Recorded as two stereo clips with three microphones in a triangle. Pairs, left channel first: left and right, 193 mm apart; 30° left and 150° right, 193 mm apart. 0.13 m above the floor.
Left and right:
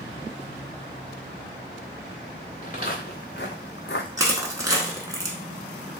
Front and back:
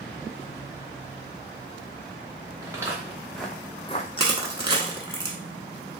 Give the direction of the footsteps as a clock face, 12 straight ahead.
7 o'clock.